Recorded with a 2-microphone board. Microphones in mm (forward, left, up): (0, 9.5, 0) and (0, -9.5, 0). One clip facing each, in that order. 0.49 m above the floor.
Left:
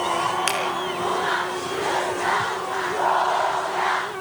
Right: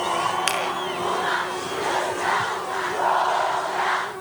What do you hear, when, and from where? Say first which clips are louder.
0.5 s a finger snap: even; centre (ahead or behind), 5 m